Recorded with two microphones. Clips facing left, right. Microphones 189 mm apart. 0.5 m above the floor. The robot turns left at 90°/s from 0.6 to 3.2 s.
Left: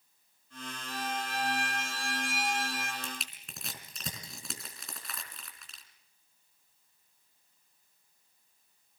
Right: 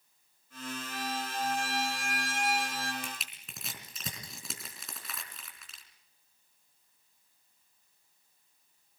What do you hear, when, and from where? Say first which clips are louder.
0.9 s a violin: left 3 dB; 140° left, 4 m; by 2.9 s 40° right, 4 m
3.0 s crushing: left 1 dB; 15° right (ahead or behind), 4 m; by 5.8 s centre (ahead or behind), 4 m